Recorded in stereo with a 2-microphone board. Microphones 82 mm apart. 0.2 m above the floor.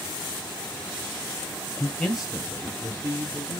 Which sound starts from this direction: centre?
A man speaking, at 1.8 s.